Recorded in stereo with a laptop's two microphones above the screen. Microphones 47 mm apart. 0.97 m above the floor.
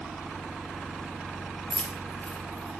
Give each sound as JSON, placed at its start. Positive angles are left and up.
{"t": 1.7, "sound": "keys jangling", "side_deg": 25, "distance_m": 0.5}